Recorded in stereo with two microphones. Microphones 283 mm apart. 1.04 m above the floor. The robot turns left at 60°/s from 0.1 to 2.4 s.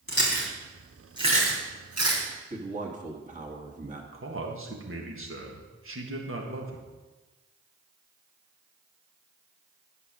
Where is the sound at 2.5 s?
25° right (ahead or behind), 1.7 m.